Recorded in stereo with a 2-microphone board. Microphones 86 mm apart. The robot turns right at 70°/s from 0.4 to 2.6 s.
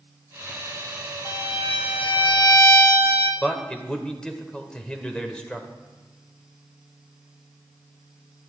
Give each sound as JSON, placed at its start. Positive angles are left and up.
{"t": 1.2, "sound": "a violin", "azimuth_deg": 50, "distance_m": 2.0}
{"t": 3.4, "sound": "a man speaking", "side_deg": 10, "distance_m": 1.6}